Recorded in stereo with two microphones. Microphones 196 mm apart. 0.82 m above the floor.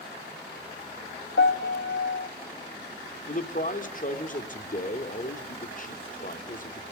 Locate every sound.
1.4 s a piano: 65° left (ahead or behind), 1.0 m
3.3 s a man speaking: 45° left (ahead or behind), 2 m